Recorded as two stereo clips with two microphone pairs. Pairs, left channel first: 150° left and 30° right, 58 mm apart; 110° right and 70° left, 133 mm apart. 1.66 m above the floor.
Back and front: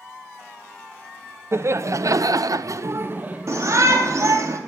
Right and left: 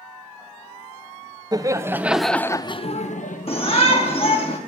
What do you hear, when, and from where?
1.5 s laughter: 10° left, 1.3 m; by 3.7 s 105° right, 1.3 m
3.5 s a shout: 70° right, 4.5 m